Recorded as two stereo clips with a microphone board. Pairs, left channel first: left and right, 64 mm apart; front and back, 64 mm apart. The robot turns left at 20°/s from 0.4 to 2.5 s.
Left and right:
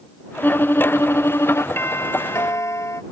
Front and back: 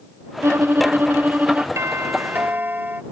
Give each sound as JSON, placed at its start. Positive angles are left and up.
{"t": 0.4, "sound": "a violin", "azimuth_deg": 145}
{"t": 1.8, "sound": "a doorbell", "azimuth_deg": 140}